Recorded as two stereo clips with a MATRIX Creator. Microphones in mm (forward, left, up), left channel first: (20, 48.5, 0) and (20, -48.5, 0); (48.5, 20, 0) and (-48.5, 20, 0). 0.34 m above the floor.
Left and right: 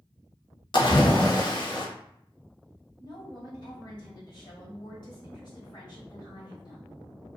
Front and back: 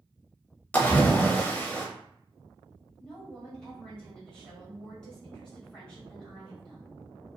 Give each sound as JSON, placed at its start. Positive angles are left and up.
{"t": 0.7, "sound": "a splash", "azimuth_deg": 70, "distance_m": 0.5}
{"t": 3.0, "sound": "a woman speaking", "azimuth_deg": 80, "distance_m": 1.4}